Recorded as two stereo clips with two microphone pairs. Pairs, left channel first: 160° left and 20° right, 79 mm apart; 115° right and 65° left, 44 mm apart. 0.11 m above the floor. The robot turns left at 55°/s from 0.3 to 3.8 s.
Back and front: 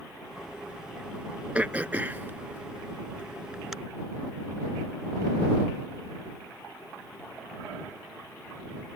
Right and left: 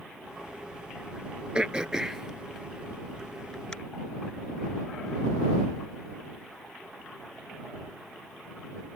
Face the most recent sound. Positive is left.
turn(degrees=-100)